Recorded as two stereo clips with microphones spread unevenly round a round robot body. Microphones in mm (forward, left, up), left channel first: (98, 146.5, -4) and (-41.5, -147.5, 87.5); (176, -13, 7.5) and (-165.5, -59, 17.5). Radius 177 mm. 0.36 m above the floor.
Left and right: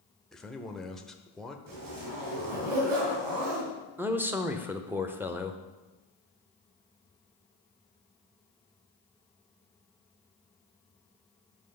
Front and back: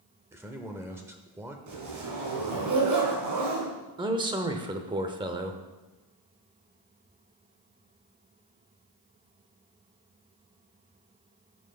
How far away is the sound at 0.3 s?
About 0.8 m.